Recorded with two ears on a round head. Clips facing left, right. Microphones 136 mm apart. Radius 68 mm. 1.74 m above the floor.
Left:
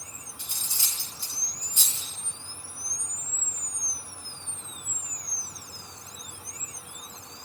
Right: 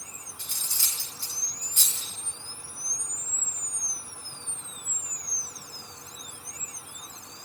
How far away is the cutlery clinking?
About 2.0 m.